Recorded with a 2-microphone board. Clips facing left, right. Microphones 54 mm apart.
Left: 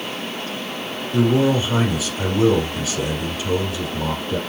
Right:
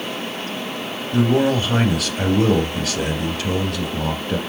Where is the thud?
No thud in this recording.